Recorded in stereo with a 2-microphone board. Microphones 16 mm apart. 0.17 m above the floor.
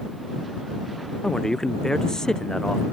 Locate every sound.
1.2 s a man speaking: 45° left (ahead or behind)